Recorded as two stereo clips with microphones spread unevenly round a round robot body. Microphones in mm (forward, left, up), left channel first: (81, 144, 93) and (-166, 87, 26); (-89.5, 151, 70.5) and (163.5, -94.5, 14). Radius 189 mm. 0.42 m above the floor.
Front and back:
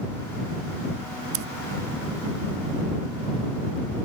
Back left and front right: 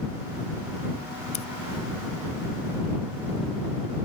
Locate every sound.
1.3 s scissors: 150° right